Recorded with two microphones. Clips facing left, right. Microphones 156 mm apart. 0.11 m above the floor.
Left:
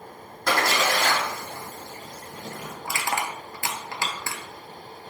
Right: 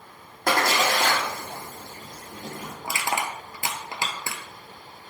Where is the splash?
50° right (ahead or behind), 1.7 m.